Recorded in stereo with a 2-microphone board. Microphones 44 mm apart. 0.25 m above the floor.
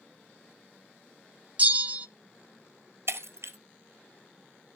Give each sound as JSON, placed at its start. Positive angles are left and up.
{"t": 1.6, "sound": "a bell", "side_deg": -30, "distance_m": 0.5}
{"t": 3.1, "sound": "breaking glass", "side_deg": -70, "distance_m": 1.3}